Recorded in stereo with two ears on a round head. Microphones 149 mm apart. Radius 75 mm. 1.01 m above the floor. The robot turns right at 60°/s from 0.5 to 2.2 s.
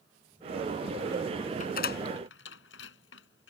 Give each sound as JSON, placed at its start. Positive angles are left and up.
{"t": 1.6, "sound": "a door slam", "side_deg": 45}